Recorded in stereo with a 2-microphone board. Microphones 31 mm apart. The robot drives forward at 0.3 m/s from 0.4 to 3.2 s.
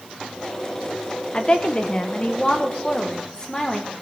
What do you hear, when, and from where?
1.3 s a woman speaking: 35° left (ahead or behind), 1.3 m; by 3.9 s 25° left (ahead or behind), 1.8 m